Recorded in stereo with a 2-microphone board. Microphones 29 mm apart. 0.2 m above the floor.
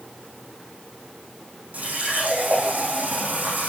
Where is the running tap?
55° right (ahead or behind), 5.5 m.